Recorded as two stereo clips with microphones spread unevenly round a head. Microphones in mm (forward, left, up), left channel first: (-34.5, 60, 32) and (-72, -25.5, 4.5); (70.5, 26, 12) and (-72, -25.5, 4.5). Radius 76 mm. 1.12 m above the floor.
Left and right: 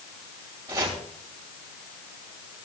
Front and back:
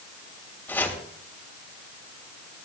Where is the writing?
I don't hear writing.